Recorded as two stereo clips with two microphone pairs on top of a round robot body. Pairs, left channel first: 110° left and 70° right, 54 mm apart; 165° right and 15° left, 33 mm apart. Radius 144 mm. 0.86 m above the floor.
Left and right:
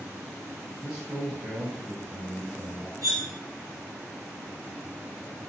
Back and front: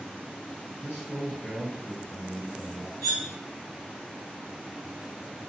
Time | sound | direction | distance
0.8 | a man speaking | 150° right | 1.4 m
3.0 | cutlery clinking | 85° right | 1.4 m